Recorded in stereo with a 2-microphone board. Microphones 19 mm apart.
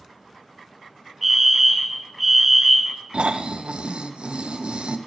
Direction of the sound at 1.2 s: 5° right (ahead or behind).